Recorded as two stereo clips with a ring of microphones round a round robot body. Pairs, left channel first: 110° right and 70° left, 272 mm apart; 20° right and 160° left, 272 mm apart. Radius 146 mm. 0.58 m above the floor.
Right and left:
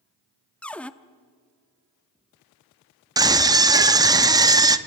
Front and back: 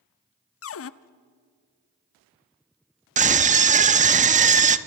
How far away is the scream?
About 1.0 m.